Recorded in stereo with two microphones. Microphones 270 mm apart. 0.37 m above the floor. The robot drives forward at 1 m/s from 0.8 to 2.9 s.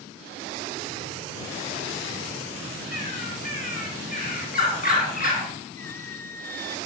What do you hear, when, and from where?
2.9 s a bird: 30° left (ahead or behind), 1.9 m
5.8 s a squeak: 10° left (ahead or behind), 0.7 m